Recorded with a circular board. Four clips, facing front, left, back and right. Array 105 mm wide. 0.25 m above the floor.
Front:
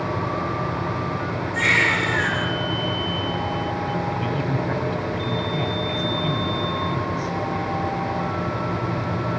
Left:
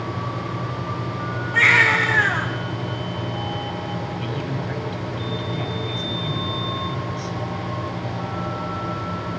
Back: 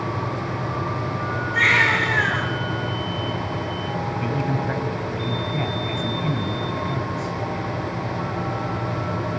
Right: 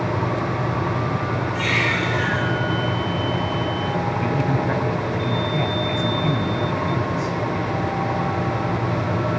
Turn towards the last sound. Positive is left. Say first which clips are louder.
# right 6 dB, even
turn(degrees=-110)